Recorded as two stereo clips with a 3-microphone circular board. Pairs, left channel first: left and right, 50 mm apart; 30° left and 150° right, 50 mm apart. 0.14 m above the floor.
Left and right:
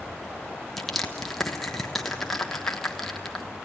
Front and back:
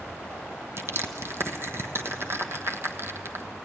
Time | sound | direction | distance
0.8 | crushing | 175° left | 1.3 m